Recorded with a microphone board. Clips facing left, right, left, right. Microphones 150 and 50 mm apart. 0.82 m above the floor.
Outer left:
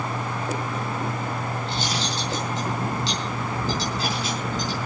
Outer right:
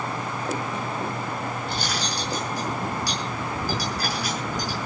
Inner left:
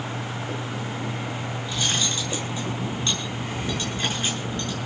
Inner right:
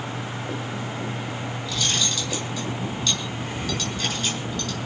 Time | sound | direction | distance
1.6 | cutlery clinking | 25° left (ahead or behind) | 7.5 m